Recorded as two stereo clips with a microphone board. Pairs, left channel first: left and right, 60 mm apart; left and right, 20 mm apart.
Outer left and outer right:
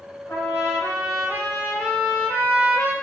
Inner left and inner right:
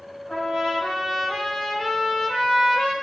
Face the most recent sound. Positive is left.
turn(degrees=55)  # may be behind; listen again after turning